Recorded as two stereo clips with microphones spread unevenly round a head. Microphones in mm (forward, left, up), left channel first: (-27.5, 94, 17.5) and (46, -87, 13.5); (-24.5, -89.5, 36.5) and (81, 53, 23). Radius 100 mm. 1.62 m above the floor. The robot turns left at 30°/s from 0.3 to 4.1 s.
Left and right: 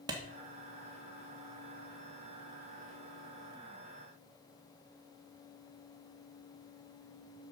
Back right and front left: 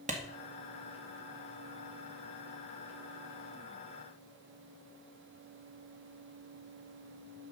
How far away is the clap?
About 1.8 m.